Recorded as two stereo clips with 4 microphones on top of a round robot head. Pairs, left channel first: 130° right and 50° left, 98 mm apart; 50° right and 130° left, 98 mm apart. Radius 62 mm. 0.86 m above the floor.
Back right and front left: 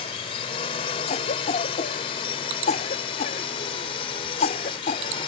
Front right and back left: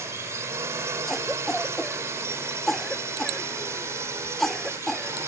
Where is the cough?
135° right.